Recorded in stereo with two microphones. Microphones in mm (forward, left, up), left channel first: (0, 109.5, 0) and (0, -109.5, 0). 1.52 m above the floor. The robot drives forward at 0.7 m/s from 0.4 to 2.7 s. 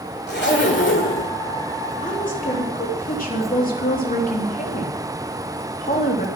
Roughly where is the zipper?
Left.